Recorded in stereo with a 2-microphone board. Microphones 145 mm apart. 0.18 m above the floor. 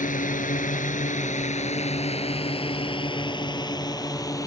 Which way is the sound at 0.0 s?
60° left (ahead or behind).